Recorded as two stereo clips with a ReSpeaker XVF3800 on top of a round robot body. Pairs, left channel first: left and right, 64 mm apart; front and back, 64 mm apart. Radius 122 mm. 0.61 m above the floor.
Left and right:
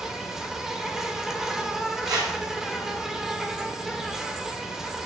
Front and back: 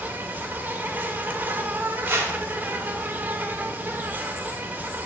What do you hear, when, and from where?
0.0 s an insect: 165° right, 1.5 m
2.0 s a whoosh: 130° right, 1.4 m